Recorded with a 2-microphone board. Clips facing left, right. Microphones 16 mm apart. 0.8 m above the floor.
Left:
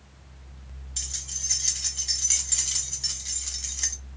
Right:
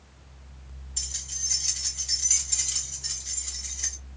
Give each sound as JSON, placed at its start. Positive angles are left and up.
{"t": 1.0, "sound": "keys jangling", "side_deg": 50, "distance_m": 3.5}